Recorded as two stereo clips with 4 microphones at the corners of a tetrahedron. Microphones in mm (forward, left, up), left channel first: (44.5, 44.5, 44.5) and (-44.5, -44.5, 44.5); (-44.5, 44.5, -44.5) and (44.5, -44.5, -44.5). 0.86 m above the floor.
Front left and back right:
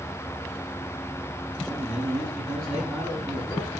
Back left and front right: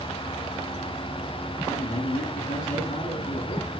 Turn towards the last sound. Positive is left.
turn(degrees=150)